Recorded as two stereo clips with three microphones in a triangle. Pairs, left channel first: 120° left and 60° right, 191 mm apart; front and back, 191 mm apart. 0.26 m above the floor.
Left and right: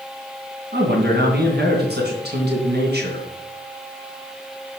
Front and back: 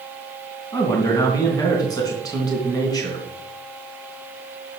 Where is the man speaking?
65° right, 3 m.